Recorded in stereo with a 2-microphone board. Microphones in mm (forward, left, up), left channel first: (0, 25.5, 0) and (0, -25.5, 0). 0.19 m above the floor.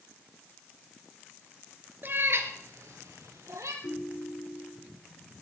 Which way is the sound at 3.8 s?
65° left (ahead or behind).